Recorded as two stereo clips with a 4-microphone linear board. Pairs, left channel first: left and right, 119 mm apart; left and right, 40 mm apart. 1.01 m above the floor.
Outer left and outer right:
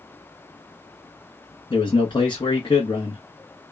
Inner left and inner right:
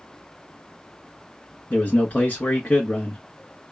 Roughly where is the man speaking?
Left.